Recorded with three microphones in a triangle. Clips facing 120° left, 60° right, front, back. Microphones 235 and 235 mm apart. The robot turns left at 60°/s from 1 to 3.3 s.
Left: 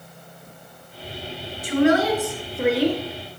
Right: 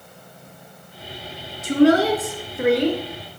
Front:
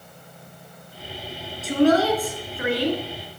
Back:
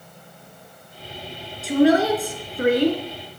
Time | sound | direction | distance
1.6 | a woman speaking | 85° right | 2.5 m